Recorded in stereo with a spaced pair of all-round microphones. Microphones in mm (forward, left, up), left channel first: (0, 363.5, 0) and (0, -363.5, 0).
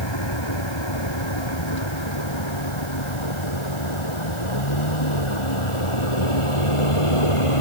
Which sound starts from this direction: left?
A vehicle, at 0.0 s.